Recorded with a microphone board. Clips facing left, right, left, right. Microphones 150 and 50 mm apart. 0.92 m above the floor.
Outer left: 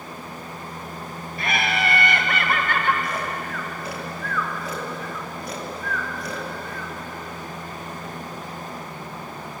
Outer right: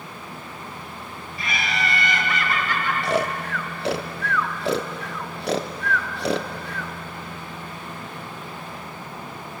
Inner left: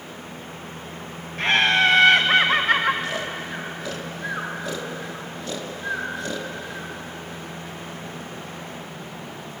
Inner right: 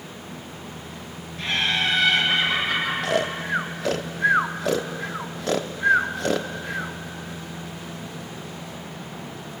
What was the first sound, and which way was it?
Laughter, 55° left (ahead or behind).